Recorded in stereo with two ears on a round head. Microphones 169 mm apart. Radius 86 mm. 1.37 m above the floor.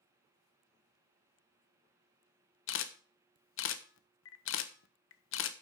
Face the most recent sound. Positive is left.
turn(degrees=65)  # may be behind; listen again after turning